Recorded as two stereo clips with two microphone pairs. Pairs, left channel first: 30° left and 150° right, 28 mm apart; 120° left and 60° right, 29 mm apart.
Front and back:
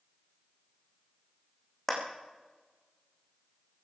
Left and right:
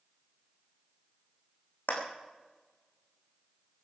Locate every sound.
1.9 s a clap: 115° left, 4.5 m